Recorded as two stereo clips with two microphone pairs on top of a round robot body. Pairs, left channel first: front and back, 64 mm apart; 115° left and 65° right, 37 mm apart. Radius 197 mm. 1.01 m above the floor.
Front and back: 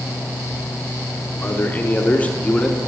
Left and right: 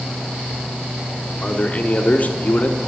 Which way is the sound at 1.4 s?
65° left.